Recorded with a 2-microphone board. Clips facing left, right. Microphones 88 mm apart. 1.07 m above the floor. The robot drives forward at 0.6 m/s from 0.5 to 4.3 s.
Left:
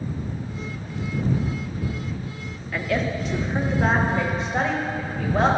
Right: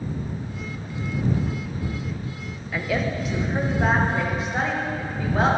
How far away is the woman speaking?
About 0.6 m.